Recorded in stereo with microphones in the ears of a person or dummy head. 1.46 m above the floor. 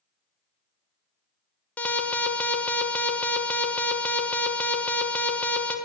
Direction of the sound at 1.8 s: 5° left (ahead or behind).